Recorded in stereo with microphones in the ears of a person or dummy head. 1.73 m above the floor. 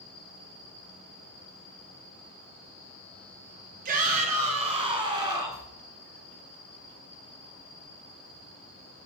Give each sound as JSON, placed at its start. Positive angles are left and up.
{"t": 3.9, "sound": "a shout", "side_deg": -50, "distance_m": 2.0}